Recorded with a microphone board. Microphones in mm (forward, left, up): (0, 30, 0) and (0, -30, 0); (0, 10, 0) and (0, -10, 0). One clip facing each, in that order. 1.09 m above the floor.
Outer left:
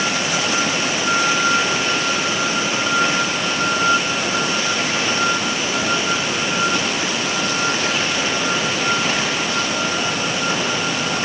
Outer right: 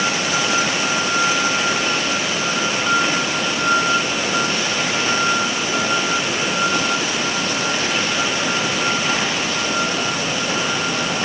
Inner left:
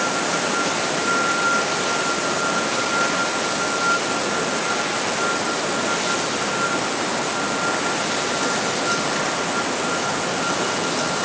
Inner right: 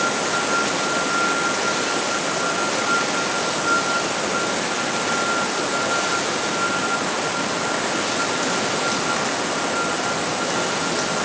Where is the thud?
No thud in this recording.